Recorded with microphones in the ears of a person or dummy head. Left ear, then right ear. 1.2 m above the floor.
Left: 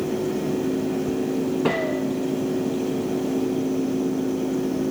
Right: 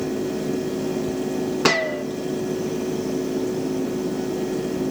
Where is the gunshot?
55° right (ahead or behind), 1.6 m.